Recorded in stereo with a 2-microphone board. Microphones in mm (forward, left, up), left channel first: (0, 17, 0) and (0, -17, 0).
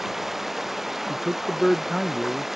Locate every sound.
0.0 s running water: 5° right (ahead or behind)
1.1 s a man speaking: 5° right (ahead or behind)